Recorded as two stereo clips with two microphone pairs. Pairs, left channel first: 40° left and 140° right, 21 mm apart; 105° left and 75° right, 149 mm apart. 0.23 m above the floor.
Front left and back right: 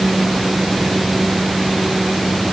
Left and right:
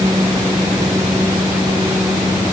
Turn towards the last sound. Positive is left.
No sound to turn to.